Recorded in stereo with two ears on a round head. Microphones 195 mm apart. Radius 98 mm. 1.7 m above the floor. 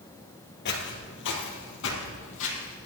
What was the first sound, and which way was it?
Footsteps, 50° left (ahead or behind).